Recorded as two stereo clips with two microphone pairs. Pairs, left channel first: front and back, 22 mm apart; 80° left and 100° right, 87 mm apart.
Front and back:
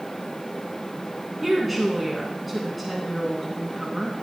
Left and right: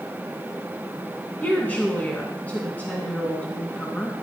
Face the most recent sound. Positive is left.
turn(degrees=105)